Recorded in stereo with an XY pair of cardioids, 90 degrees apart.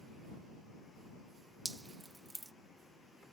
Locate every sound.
1.6 s dripping: 20° right